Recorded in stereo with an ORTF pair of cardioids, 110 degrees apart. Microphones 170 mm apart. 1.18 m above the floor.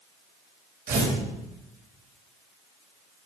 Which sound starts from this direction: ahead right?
Tearing paper, at 0.9 s.